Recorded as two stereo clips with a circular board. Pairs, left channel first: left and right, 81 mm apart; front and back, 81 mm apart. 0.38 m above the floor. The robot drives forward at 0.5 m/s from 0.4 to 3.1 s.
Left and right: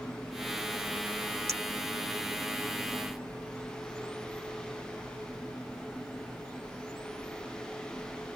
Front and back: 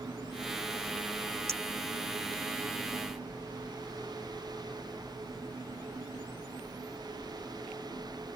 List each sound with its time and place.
1.5 s a clink: 130° right; by 1.6 s 135° right